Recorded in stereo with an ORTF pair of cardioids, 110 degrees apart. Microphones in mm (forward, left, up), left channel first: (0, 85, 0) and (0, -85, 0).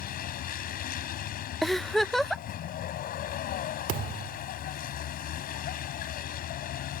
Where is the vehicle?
60° left.